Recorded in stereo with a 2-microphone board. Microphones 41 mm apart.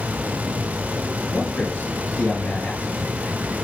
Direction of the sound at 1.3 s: 50° left (ahead or behind).